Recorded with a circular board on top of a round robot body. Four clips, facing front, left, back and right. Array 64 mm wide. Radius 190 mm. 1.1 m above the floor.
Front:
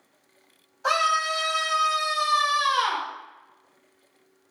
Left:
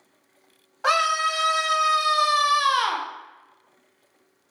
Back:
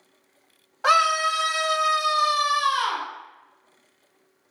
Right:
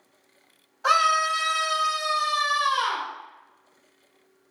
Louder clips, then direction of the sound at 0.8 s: Right 1 dB, back 3 dB; 150° left.